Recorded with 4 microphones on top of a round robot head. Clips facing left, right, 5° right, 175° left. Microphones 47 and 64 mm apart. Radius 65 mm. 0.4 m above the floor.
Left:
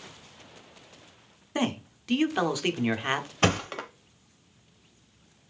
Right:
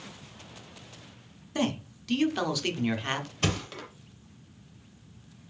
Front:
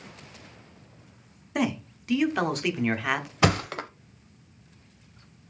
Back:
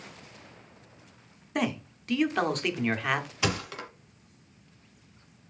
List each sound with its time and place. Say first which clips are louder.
1.6 s a man speaking: left 1 dB, front 2 dB; 75° left, 0.9 m
3.4 s a thud: left 7 dB, front 7 dB; 35° left, 0.7 m